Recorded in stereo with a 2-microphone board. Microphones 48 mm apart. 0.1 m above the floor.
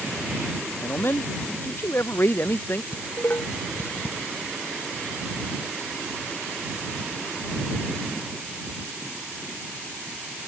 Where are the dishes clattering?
45° left (ahead or behind).